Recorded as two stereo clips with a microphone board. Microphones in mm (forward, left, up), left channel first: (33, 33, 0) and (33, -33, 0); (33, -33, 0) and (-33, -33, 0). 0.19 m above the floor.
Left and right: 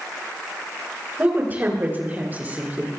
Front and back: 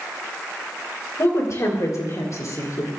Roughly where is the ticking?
No ticking in this recording.